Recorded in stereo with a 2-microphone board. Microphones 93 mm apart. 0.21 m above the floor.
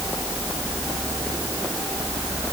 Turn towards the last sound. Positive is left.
No sound to turn to.